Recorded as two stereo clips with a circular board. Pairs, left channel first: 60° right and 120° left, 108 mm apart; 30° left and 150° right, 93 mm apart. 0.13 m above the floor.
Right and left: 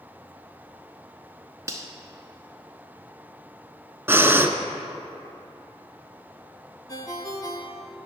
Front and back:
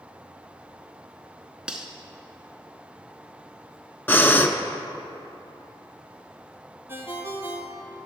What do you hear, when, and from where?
1.7 s cutlery clinking: 135° left, 0.8 m
4.1 s breathing: 70° left, 0.5 m
6.9 s a ringtone: 95° right, 0.9 m